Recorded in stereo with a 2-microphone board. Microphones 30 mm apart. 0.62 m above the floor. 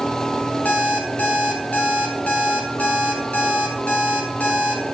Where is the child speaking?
No child speaking in this recording.